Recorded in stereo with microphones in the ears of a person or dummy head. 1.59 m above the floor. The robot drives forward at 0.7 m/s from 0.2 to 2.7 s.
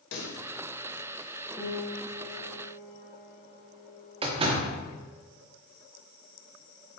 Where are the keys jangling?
No keys jangling in this recording.